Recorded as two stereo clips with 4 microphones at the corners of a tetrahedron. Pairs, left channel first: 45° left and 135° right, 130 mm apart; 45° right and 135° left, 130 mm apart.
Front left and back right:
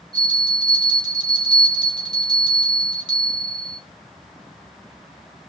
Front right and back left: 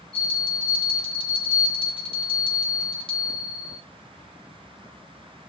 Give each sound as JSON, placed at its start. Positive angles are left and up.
{"t": 0.1, "sound": "a bell", "azimuth_deg": -85, "distance_m": 2.5}